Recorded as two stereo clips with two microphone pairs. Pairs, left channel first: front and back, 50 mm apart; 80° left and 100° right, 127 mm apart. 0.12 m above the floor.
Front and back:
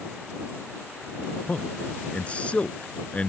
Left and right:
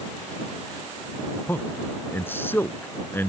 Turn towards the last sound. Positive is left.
turn(degrees=30)